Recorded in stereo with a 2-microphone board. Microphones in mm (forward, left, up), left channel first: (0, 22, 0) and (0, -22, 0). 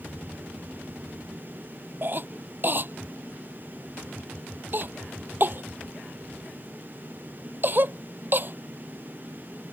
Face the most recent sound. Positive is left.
turn(degrees=-45)  # may be behind; listen again after turning